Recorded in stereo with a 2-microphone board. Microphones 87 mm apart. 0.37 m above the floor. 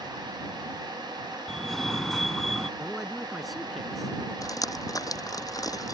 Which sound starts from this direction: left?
Dripping, at 4.4 s.